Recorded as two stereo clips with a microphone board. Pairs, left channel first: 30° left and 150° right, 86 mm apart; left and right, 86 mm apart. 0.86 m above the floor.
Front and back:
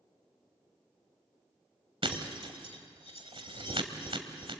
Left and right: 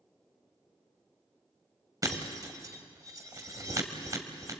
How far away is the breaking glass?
About 1.8 m.